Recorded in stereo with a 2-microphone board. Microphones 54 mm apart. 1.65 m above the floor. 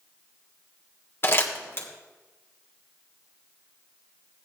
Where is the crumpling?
45° left (ahead or behind), 1.8 m.